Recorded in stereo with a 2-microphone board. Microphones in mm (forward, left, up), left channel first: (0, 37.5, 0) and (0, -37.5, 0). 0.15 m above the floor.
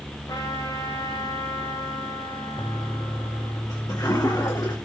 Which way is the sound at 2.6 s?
50° left (ahead or behind).